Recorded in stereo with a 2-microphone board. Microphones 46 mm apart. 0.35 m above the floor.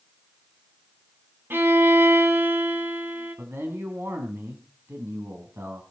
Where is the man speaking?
65° right (ahead or behind), 3 m.